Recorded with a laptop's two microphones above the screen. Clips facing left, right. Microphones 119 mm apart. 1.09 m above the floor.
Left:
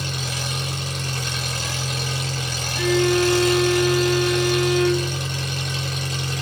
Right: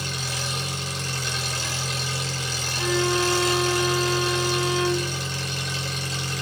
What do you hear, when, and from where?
0.0 s an engine running: 55° left (ahead or behind), 6 m
2.8 s a violin: 75° left (ahead or behind), 2 m